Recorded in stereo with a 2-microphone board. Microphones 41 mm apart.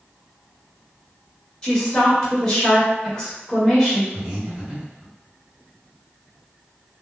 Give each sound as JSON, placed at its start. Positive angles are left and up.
{"t": 1.6, "sound": "a woman speaking", "side_deg": 20, "distance_m": 1.0}
{"t": 4.1, "sound": "breathing", "side_deg": -20, "distance_m": 1.4}